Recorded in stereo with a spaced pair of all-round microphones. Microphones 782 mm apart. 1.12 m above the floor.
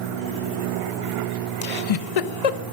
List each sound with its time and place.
1.6 s a giggle: 50° left (ahead or behind), 0.5 m